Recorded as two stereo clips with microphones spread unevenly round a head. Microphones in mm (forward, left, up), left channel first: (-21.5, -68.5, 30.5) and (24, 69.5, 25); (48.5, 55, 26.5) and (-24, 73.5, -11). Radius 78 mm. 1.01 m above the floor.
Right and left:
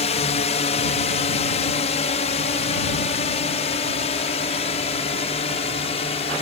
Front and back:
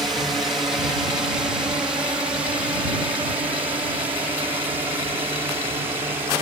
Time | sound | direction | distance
0.0 | a drone | 135° right | ?